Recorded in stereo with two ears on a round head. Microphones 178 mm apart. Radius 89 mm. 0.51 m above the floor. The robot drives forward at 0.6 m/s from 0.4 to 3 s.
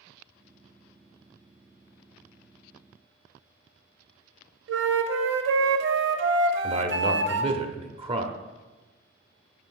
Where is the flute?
60° right (ahead or behind), 0.7 m.